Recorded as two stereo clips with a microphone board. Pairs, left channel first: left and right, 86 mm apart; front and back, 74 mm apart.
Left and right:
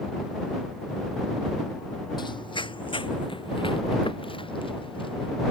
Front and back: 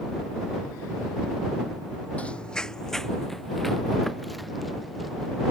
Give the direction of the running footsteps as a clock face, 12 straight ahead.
10 o'clock.